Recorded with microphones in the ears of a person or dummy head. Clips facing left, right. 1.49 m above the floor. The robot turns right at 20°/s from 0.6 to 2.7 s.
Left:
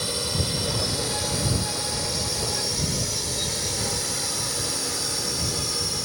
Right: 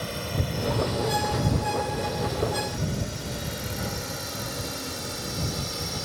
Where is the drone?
55° left (ahead or behind); by 6.1 s 65° left (ahead or behind).